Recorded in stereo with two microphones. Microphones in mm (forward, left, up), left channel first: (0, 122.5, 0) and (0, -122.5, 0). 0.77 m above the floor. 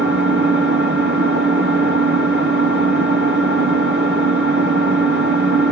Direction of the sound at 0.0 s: 45° right (ahead or behind).